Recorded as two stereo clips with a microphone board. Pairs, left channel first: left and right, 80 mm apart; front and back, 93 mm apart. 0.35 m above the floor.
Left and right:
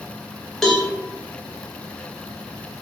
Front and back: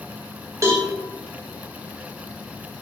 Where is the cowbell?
170° left, 0.7 m.